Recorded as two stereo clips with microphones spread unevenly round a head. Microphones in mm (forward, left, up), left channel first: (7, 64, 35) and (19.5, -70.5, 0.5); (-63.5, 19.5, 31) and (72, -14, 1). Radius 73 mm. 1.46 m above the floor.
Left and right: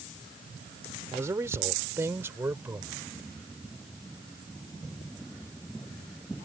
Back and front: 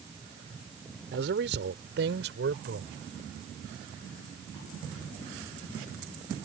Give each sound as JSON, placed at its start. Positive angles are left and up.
{"t": 1.1, "sound": "a man speaking", "azimuth_deg": -10}